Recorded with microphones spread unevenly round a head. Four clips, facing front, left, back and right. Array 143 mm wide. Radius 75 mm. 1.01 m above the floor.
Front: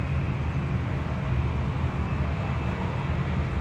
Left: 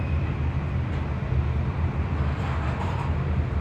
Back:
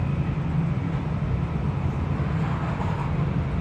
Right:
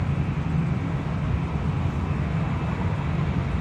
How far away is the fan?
About 0.8 m.